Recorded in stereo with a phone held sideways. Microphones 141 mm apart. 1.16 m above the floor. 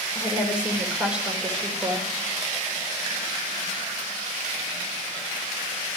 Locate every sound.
0.1 s a woman speaking: 10° right (ahead or behind), 4.5 m